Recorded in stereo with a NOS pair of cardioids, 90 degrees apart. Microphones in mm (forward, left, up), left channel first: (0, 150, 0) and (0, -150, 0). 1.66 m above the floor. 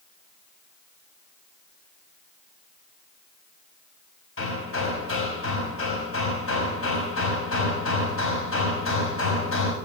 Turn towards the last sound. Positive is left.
turn(degrees=50)